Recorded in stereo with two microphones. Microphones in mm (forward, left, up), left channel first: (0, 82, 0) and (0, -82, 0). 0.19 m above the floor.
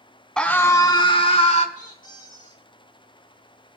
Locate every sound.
0.4 s a scream: 5° left (ahead or behind), 1.9 m; by 1.6 s 45° left (ahead or behind), 3 m
1.8 s a squeak: 50° left (ahead or behind), 2.5 m